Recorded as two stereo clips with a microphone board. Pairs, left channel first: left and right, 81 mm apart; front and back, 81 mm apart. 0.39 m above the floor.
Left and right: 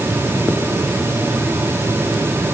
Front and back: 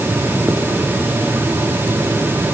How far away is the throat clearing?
I don't hear throat clearing.